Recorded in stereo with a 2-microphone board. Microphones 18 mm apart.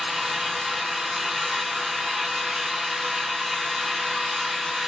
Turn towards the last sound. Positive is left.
turn(degrees=-30)  # may be behind; listen again after turning